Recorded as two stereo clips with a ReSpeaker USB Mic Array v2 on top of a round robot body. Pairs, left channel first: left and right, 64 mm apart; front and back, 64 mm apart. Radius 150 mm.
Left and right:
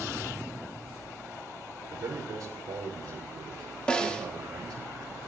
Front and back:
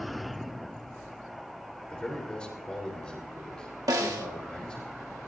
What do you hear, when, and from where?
1.9 s a man speaking: 75° right, 3 m
3.9 s a snare drum: 165° left, 2 m